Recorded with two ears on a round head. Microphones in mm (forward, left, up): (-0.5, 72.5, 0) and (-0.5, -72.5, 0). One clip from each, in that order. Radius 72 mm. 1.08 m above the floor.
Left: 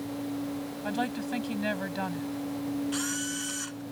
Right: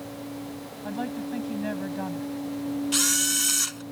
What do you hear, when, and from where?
0.8 s a woman speaking: 60° left (ahead or behind)
2.9 s a camera shutter: 75° right (ahead or behind)